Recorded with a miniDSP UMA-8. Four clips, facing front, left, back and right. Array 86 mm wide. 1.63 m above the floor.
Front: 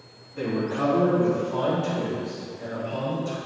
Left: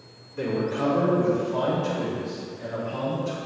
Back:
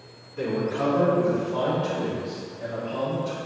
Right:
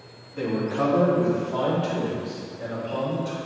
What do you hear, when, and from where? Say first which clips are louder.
0.3 s a man speaking: right 1 dB, even; 60° right, 2.5 m; by 3.4 s 85° right, 6 m